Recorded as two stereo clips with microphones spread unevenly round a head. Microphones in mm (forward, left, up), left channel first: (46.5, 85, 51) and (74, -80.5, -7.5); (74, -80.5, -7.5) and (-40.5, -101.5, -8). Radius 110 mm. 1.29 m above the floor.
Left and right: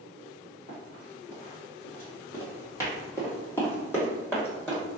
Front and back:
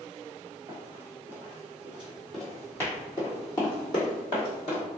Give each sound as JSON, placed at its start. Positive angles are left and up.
{"t": 0.7, "sound": "running footsteps", "azimuth_deg": 140, "distance_m": 1.7}